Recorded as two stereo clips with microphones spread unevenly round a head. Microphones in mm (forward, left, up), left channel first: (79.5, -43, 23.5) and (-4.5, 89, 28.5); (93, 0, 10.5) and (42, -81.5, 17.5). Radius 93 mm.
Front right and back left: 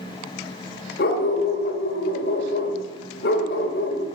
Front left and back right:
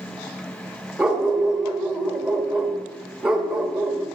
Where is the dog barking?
45° right, 1.8 m.